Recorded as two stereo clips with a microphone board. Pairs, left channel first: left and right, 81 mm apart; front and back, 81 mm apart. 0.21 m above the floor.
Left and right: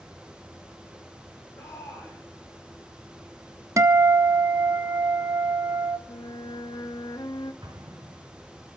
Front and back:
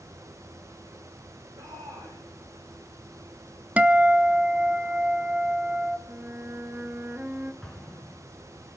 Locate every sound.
1.6 s a shout: 150° left, 9 m
3.8 s a guitar: 115° right, 0.6 m
6.1 s a flute: 110° left, 0.7 m
7.6 s an explosion: 85° right, 2.5 m